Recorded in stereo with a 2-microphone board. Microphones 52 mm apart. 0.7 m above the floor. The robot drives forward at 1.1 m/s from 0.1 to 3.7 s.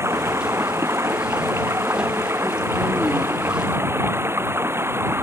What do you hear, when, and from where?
0.0 s running water: 60° right (ahead or behind); by 5.2 s 55° right (ahead or behind)